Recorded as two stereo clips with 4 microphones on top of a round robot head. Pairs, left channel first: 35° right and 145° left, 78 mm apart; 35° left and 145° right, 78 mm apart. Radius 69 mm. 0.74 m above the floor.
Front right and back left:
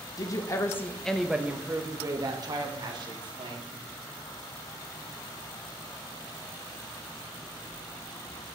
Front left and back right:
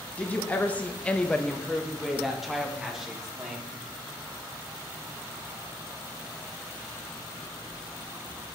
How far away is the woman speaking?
About 1.1 m.